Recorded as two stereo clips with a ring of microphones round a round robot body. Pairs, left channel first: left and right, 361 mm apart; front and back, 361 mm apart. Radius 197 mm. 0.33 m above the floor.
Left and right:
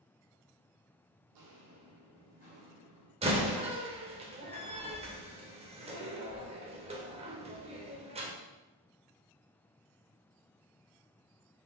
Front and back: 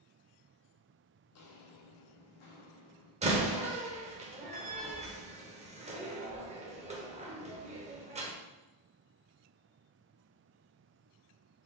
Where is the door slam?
140° right, 0.8 m.